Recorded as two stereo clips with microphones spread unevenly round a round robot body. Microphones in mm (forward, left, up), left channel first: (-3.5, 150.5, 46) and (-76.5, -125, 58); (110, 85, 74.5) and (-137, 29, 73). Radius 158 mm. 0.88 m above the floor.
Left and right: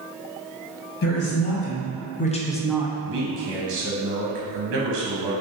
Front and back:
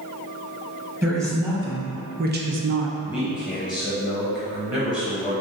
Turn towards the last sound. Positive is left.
turn(degrees=-60)